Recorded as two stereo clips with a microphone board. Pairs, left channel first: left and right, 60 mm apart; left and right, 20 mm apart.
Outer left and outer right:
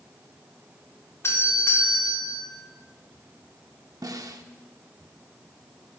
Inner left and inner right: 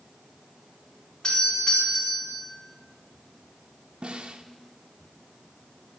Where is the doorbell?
45° left (ahead or behind), 3.5 m.